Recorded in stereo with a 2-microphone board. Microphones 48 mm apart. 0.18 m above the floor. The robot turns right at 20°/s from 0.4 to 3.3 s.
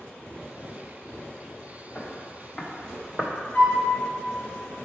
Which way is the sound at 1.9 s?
40° left (ahead or behind).